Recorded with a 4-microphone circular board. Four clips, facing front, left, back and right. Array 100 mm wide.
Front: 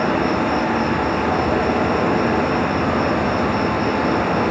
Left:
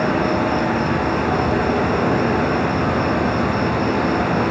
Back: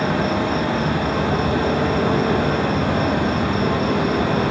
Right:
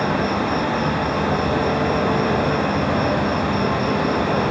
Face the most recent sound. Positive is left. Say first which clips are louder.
# left 2 dB, front 2 dB
turn(degrees=50)